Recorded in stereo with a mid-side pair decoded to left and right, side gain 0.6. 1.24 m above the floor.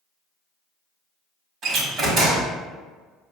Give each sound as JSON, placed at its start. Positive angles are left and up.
{"t": 1.6, "sound": "a door slam", "azimuth_deg": -50, "distance_m": 1.4}